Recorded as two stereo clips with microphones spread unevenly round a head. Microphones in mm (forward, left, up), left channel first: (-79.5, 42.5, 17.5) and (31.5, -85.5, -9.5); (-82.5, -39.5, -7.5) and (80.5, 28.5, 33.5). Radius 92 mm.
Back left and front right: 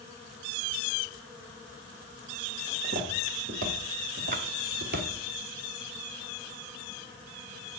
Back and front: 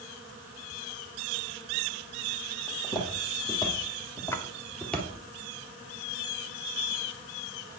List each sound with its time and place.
2.7 s footsteps: 90° right, 3.5 m; by 5.1 s 60° right, 2.5 m
4.3 s a splash: 70° right, 1.1 m